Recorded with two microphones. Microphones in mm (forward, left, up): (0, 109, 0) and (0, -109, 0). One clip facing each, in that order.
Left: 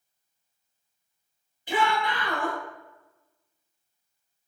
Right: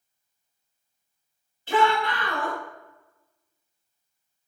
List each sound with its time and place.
1.7 s a shout: 15° left (ahead or behind), 1.1 m